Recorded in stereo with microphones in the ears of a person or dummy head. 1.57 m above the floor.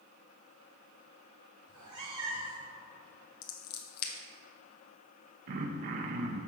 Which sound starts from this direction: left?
Scissors, at 3.4 s.